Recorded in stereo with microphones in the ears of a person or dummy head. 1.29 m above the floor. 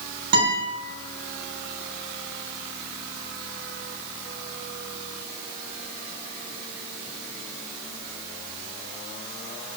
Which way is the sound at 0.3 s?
50° right (ahead or behind).